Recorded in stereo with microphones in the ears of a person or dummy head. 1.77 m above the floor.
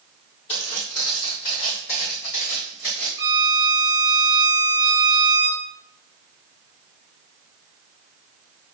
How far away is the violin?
About 1.1 m.